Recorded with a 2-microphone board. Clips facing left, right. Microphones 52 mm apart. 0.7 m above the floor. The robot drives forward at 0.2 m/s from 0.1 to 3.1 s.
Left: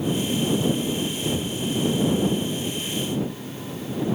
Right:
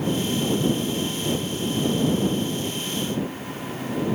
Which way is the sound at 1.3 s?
60° right (ahead or behind).